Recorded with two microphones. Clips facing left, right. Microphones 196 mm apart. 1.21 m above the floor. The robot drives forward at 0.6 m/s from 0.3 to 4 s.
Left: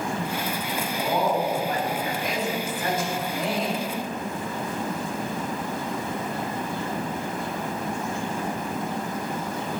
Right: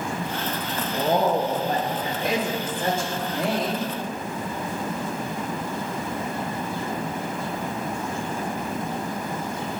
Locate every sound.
0.9 s a woman speaking: 45° right (ahead or behind), 1.8 m; by 3.9 s 25° right (ahead or behind), 3 m